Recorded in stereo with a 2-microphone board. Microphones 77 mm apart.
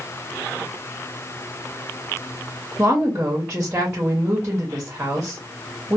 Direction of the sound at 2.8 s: 20° right (ahead or behind).